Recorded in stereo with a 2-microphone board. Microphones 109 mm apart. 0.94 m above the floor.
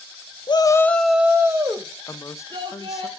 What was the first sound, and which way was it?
A shout, 45° left (ahead or behind).